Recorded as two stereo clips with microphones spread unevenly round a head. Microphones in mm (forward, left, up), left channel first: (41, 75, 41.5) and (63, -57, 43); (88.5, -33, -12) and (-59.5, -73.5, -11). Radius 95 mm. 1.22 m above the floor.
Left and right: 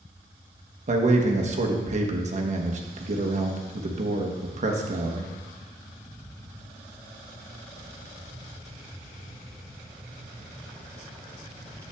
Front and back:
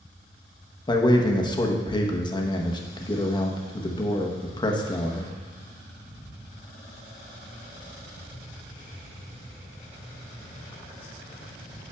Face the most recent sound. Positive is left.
turn(degrees=-50)